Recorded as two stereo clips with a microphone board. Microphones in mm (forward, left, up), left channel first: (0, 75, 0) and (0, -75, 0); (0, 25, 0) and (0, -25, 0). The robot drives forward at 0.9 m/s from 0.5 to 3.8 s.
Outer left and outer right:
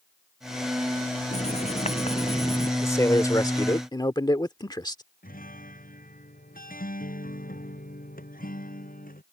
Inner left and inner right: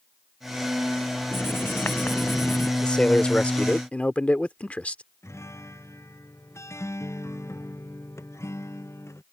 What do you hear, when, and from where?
1.3 s writing: 50° left (ahead or behind); by 2.7 s 45° left (ahead or behind)
2.8 s a man speaking: 20° left (ahead or behind); by 5.0 s 30° left (ahead or behind)
5.2 s a guitar: 75° left (ahead or behind)